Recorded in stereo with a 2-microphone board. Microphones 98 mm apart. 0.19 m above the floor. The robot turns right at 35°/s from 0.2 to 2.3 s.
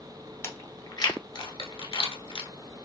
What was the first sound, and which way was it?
Chewing, 30° left (ahead or behind).